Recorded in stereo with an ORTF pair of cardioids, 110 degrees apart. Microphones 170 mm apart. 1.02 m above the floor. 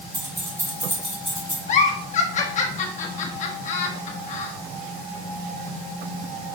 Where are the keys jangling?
25° right, 3 m; by 1.6 s 5° left, 3.5 m.